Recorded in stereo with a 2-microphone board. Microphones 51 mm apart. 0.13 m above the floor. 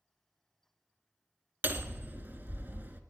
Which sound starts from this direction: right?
Hammering, at 1.6 s.